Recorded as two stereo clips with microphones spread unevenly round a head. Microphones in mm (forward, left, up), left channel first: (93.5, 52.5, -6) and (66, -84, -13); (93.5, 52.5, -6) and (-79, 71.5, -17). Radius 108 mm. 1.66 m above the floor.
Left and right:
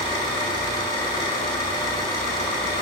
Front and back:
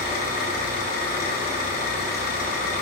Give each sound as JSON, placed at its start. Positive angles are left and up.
{"t": 0.0, "sound": "an engine running", "azimuth_deg": 15, "distance_m": 3.5}